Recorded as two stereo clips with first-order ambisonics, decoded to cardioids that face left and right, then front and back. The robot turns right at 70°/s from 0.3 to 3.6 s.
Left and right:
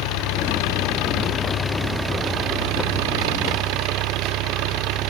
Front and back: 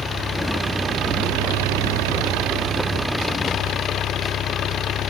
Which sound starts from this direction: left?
An engine running, at 0.0 s.